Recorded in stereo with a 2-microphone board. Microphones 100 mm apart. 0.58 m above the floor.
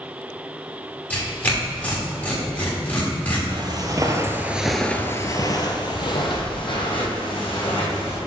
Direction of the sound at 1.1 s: 20° left (ahead or behind).